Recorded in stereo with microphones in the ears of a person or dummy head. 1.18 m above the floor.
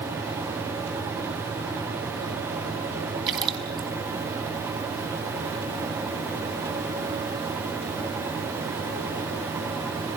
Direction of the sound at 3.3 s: 25° right (ahead or behind).